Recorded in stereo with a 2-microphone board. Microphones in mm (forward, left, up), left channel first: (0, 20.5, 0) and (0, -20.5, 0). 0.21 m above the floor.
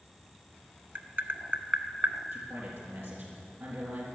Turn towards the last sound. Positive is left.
turn(degrees=-65)  # may be behind; listen again after turning